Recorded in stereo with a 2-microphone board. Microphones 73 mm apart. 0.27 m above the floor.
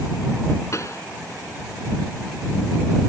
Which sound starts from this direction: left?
A pop, at 0.7 s.